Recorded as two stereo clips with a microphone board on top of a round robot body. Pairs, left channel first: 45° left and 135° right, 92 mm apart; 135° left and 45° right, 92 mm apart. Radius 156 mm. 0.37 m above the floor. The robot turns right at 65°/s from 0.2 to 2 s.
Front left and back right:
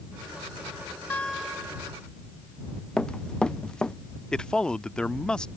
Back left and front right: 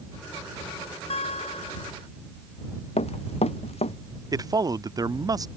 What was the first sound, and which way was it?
A guitar, 115° left.